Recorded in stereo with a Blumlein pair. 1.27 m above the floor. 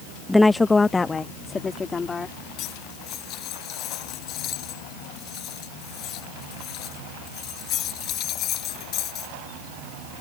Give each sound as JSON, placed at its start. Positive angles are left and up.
{"t": 0.3, "sound": "a woman speaking", "azimuth_deg": 5}
{"t": 2.6, "sound": "cutlery clinking", "azimuth_deg": 35}